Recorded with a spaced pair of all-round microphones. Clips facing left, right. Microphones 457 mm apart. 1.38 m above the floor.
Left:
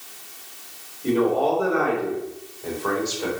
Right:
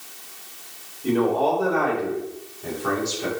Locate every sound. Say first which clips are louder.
1.0 s a man speaking: left 1 dB; 5° right (ahead or behind), 4.5 m; by 3.3 s 40° right (ahead or behind), 4 m